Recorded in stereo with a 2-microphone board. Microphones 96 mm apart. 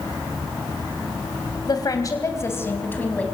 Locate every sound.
1.7 s a woman speaking: 45° left (ahead or behind), 3.5 m; by 3.2 s 15° left (ahead or behind), 4.5 m